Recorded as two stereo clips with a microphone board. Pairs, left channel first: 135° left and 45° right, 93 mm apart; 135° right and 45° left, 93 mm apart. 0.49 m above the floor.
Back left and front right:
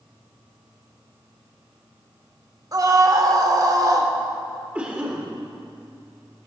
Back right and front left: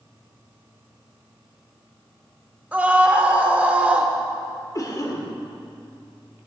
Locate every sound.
2.7 s a scream: 25° right, 1.1 m
4.8 s a cough: 115° right, 1.5 m